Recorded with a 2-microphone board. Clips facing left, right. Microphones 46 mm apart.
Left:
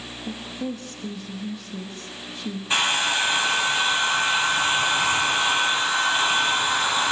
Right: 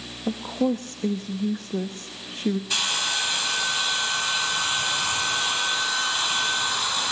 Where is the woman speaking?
45° right (ahead or behind), 1.1 m.